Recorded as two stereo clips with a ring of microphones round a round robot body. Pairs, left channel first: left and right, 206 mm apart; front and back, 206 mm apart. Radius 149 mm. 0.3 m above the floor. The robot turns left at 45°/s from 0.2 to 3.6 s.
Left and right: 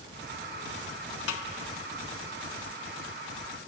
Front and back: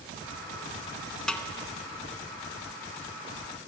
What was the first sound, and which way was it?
A snare drum, 85° left.